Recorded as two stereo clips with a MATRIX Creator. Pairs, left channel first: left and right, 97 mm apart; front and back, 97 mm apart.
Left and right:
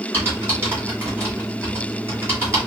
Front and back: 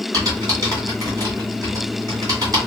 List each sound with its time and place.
0.1 s typing on a keyboard: 145° right, 1.8 m